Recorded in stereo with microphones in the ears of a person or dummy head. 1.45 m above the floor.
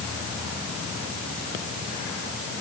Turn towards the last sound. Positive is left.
No sound to turn to.